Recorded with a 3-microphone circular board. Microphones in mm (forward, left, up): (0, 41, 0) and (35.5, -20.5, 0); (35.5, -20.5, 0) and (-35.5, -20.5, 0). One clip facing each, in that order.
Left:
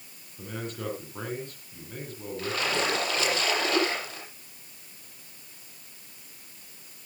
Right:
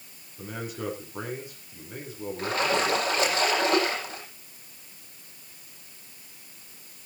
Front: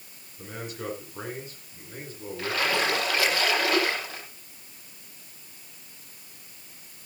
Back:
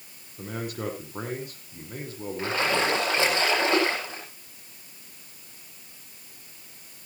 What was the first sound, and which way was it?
A man speaking, 140° right.